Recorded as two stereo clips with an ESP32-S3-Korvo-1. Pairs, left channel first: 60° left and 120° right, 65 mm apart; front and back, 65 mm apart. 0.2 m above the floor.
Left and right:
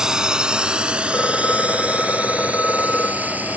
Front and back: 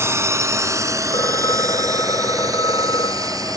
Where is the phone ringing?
5° right.